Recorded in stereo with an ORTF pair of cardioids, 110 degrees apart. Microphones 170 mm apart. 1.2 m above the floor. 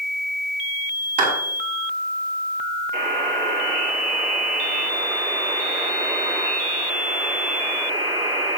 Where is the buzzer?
65° right, 5.5 m.